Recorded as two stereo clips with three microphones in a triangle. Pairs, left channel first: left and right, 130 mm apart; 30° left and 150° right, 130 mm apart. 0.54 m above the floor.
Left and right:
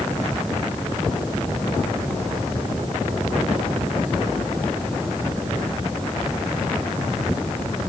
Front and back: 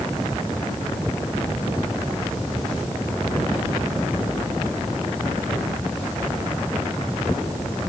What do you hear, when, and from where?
Only background noise.